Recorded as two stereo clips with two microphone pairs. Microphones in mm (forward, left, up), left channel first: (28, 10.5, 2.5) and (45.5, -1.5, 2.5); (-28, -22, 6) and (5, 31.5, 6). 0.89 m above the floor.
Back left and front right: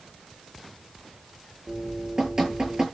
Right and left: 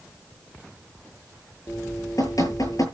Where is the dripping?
100° right, 8 m.